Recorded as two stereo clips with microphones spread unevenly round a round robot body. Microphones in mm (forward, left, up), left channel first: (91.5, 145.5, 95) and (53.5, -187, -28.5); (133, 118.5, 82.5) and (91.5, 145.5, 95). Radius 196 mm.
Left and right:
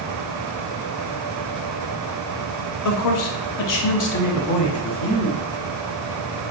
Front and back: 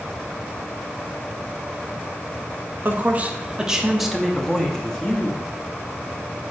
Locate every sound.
2.9 s a man speaking: 100° left, 0.8 m; by 5.4 s 35° left, 1.7 m